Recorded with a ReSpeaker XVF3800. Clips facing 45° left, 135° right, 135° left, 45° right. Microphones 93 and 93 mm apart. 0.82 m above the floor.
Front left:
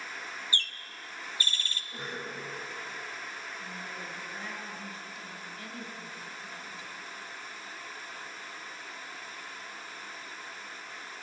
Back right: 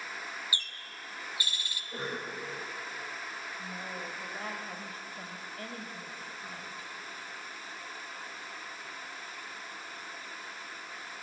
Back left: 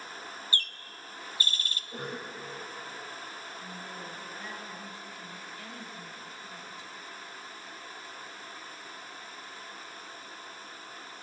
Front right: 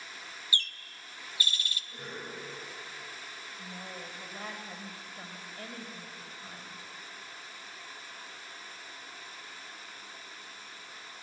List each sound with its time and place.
0.5 s a bird: 150° left, 1.1 m
1.9 s a cough: 175° left, 4.5 m
3.6 s a woman speaking: 90° right, 3.5 m